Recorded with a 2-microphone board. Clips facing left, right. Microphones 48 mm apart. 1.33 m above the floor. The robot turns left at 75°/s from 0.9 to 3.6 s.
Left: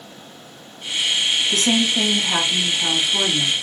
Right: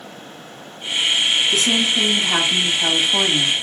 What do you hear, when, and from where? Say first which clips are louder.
1.5 s a woman speaking: right 1 dB; 55° left, 1.6 m; by 3.5 s 100° right, 1.6 m